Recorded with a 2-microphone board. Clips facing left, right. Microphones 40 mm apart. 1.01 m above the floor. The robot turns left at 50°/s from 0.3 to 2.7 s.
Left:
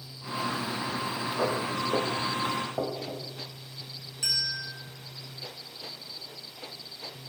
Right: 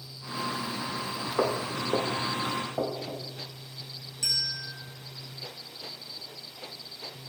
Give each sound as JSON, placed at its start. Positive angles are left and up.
{"t": 1.4, "sound": "footsteps", "side_deg": -40, "distance_m": 2.0}
{"t": 4.2, "sound": "a bell", "side_deg": 30, "distance_m": 1.7}